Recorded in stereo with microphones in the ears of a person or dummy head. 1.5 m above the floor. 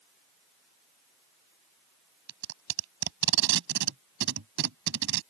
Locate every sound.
2.3 s tape being pulled: 70° right (ahead or behind)